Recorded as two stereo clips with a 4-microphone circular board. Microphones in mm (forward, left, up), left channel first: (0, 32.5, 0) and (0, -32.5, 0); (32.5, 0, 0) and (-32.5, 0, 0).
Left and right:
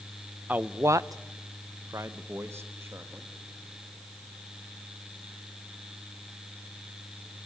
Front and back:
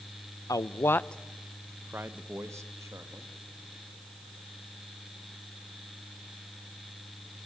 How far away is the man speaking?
About 0.7 m.